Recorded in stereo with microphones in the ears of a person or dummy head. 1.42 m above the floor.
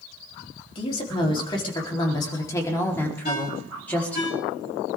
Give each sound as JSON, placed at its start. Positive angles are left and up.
{"t": 0.8, "sound": "a woman speaking", "side_deg": 30, "distance_m": 4.0}
{"t": 3.2, "sound": "a ringtone", "side_deg": 50, "distance_m": 5.0}